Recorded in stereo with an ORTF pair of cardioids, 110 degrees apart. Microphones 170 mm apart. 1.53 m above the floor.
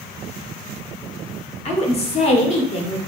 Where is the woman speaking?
40° left, 1.0 m.